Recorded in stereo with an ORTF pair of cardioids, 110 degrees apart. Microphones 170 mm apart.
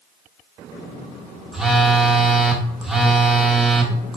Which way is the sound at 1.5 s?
5° right.